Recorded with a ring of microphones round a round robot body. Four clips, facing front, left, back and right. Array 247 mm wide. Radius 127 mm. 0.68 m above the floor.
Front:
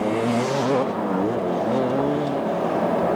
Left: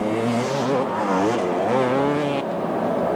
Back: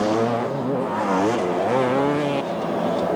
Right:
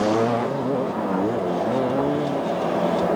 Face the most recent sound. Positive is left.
No sound to turn to.